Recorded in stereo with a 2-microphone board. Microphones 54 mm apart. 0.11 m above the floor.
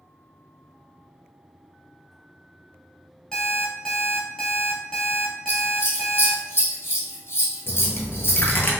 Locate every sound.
3.3 s an alarm clock: 15° left (ahead or behind), 1.3 m
5.5 s scissors: 50° left (ahead or behind), 1.4 m
7.7 s a dropped coin: 40° left (ahead or behind), 0.8 m